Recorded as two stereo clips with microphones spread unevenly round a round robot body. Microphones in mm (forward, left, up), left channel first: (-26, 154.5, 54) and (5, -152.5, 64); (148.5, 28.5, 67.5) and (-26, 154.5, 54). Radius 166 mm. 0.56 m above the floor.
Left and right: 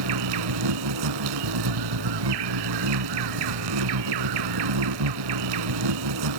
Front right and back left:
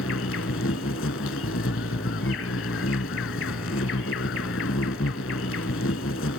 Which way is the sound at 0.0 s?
85° right.